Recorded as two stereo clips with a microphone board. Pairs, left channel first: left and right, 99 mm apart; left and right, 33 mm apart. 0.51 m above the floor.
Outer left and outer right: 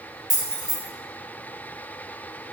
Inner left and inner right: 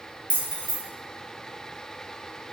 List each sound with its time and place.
0.3 s keys jangling: 50° right (ahead or behind), 1.2 m